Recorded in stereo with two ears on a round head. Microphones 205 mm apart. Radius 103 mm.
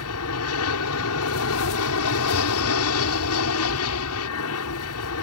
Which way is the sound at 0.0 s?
75° left (ahead or behind).